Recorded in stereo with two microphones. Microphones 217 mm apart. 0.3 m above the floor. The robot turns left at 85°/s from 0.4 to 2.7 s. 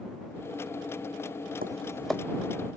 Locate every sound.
1.6 s tapping: 40° right (ahead or behind); by 2.2 s 10° left (ahead or behind)